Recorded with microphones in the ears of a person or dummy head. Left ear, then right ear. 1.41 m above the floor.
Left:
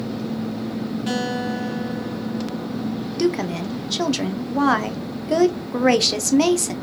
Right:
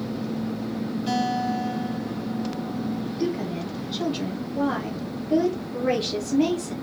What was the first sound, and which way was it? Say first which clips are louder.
A guitar: right 1 dB; 25° left (ahead or behind).